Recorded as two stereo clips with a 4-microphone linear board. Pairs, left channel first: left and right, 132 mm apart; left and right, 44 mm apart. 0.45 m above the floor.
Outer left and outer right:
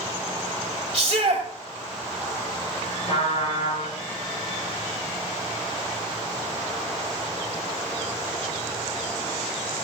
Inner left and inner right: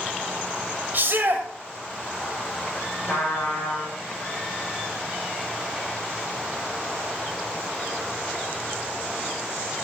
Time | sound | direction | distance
0.9 | a shout | 45° right (ahead or behind) | 1.7 m
3.1 | a trumpet | 55° left (ahead or behind) | 6.5 m